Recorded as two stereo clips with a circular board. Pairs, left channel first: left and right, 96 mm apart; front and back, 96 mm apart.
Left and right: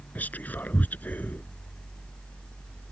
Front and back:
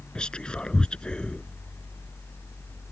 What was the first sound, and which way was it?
Whispering, 60° left.